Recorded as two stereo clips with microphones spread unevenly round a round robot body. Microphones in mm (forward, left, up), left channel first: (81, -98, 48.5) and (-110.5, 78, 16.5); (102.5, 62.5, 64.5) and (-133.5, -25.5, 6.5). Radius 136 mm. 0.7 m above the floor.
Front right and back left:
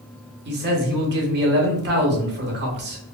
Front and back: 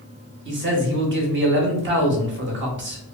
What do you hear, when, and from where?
0.5 s a man speaking: 175° left, 0.9 m